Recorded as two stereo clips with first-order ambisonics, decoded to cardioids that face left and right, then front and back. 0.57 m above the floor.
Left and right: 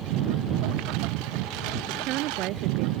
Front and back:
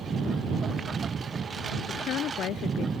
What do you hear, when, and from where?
0.0 s a lawn mower: 110° right
1.9 s a woman speaking: 50° right